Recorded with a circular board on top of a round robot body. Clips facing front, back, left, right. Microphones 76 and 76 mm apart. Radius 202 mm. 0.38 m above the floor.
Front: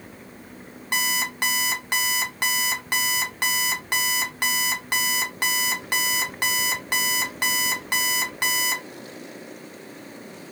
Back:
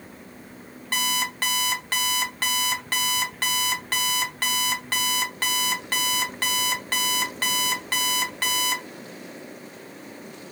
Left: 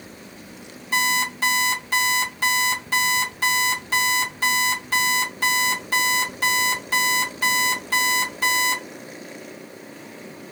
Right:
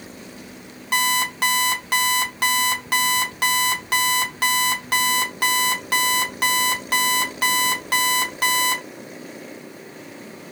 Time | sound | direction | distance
0.9 | an alarm clock | 75° right | 1.0 m